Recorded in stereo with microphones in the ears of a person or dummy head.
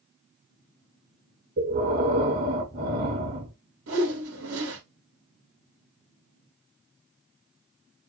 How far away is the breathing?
About 2 m.